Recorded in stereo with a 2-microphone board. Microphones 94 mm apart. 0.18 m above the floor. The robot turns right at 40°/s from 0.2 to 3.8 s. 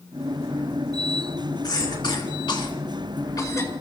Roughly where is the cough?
Left.